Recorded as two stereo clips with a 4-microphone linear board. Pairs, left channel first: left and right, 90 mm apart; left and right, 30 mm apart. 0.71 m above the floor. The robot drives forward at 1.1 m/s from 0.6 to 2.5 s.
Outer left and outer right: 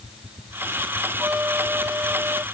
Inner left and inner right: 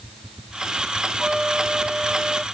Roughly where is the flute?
Right.